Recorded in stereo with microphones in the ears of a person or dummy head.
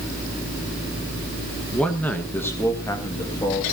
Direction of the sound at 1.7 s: Centre (ahead or behind).